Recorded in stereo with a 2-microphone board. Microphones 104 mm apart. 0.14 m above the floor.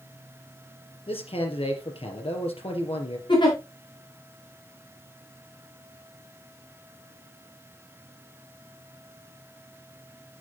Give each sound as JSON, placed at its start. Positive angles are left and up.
{"t": 1.1, "sound": "a man speaking", "side_deg": 65, "distance_m": 3.5}
{"t": 3.3, "sound": "a giggle", "side_deg": 50, "distance_m": 6.0}